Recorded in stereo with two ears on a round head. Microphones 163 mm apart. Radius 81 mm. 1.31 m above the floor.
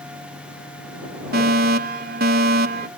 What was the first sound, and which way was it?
A fire alarm, 55° right (ahead or behind).